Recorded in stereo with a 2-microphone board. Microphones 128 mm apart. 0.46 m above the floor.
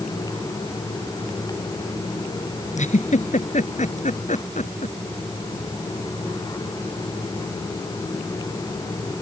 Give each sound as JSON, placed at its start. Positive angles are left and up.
{"t": 2.8, "sound": "a giggle", "side_deg": 65}